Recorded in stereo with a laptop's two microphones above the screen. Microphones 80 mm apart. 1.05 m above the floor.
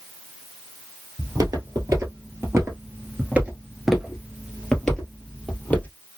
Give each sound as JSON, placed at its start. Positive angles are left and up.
{"t": 1.2, "sound": "footsteps", "side_deg": -45, "distance_m": 1.5}